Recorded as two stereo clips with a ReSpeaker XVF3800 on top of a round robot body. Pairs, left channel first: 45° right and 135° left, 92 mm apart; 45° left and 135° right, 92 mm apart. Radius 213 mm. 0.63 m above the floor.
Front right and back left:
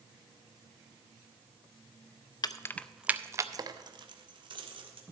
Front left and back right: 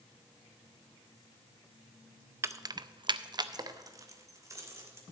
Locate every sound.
2.4 s keys jangling: 80° right, 0.8 m; by 5.0 s 165° left, 2.5 m